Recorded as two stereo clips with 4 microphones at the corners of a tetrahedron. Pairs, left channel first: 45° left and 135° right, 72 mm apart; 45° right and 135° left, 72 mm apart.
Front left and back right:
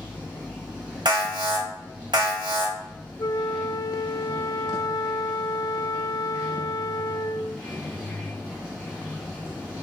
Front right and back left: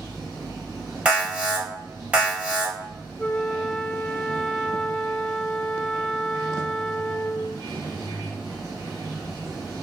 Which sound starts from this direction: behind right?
An alarm, at 1.1 s.